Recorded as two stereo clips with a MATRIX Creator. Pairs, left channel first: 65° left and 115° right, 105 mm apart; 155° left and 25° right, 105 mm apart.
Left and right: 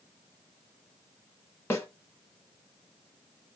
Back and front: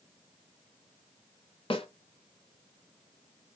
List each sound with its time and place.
1.7 s a snare drum: 135° left, 1.1 m